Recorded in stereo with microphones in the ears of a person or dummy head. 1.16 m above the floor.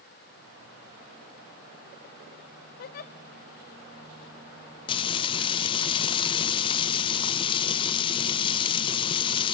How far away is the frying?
About 0.5 m.